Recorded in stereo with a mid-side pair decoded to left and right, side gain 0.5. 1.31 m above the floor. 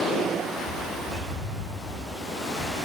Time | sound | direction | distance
0.6 | a bird | 65° left | 5.5 m